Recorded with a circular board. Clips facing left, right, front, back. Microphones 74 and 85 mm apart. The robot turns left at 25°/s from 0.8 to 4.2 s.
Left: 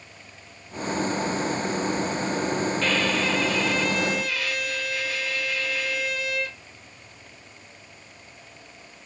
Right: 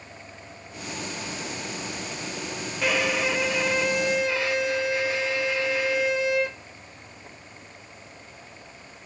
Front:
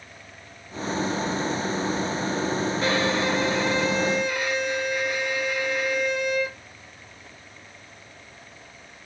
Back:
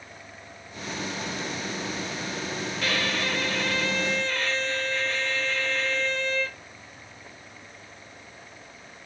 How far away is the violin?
About 0.5 m.